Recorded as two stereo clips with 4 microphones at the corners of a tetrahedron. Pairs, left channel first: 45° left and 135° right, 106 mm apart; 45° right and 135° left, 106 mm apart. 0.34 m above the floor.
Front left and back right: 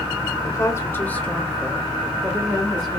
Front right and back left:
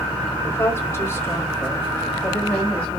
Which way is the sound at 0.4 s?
5° left.